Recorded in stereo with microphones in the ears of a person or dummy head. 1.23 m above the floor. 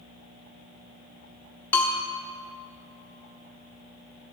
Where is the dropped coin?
No dropped coin in this recording.